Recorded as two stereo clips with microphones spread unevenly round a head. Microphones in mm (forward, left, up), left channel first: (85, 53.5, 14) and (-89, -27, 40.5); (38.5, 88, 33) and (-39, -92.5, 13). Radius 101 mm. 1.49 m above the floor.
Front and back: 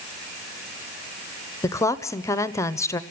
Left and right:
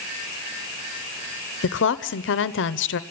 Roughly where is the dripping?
No dripping in this recording.